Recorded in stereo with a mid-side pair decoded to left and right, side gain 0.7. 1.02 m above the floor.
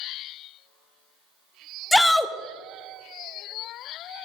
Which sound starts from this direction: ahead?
A shout, at 1.9 s.